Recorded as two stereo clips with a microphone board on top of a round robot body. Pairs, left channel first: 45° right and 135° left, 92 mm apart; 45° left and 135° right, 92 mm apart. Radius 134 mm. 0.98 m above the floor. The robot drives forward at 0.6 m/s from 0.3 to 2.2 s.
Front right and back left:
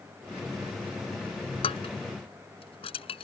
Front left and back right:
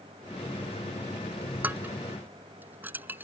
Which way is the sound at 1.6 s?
60° right.